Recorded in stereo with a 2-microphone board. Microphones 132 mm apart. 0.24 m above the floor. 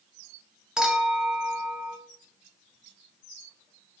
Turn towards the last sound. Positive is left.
turn(degrees=-5)  # may be behind; listen again after turning